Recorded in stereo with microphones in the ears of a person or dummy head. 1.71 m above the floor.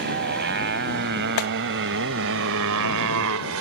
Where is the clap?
85° left.